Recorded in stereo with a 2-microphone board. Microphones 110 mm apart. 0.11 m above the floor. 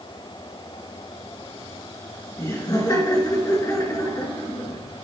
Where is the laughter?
30° left (ahead or behind), 1.5 m.